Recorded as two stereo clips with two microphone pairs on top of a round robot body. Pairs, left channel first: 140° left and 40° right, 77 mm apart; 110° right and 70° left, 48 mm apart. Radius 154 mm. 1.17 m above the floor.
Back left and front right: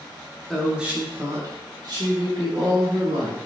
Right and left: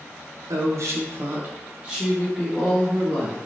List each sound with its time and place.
0.5 s a woman speaking: 55° left, 0.8 m; by 3.4 s 25° right, 1.7 m